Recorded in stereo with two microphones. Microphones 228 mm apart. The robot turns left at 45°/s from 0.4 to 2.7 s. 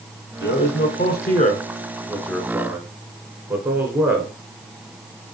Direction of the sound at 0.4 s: 50° left (ahead or behind).